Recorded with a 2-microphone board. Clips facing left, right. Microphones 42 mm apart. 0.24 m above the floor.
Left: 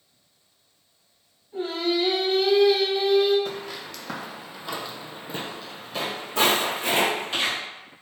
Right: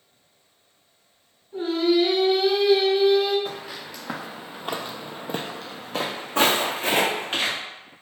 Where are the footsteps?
5° right (ahead or behind), 1.1 m; by 7.6 s 35° right (ahead or behind), 1.9 m.